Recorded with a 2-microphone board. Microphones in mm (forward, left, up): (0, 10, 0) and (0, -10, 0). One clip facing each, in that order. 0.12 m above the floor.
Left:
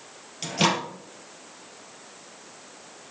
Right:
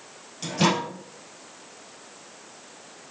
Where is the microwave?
25° left (ahead or behind), 2 m.